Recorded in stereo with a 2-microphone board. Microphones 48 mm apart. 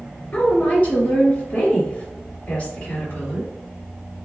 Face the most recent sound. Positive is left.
turn(degrees=25)  # may be behind; listen again after turning